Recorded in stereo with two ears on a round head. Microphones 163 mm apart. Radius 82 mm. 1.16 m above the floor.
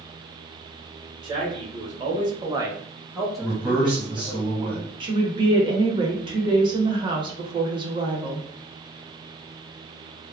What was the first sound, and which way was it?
A man speaking, 25° right (ahead or behind).